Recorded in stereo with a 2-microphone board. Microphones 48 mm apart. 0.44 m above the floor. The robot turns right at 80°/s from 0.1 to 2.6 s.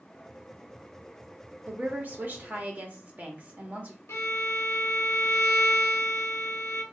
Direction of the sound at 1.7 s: 135° right.